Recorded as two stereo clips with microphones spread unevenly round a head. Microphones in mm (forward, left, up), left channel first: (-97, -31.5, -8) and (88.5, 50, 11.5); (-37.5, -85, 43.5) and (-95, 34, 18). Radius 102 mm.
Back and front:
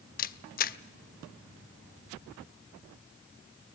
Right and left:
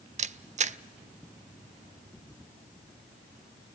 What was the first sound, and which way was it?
A camera shutter, 155° left.